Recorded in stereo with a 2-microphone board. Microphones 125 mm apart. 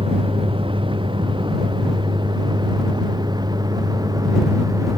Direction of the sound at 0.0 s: 45° right (ahead or behind).